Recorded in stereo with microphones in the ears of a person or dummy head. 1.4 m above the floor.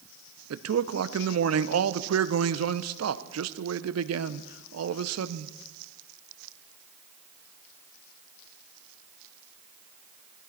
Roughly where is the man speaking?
Right.